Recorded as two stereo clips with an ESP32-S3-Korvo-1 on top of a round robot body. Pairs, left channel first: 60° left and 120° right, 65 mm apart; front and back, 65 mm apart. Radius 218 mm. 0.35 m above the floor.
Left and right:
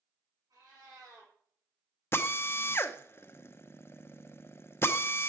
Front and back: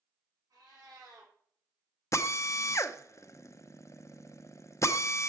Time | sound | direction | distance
0.5 | a cat meowing | 145° right | 5.5 m
2.1 | a drill | 20° left | 0.8 m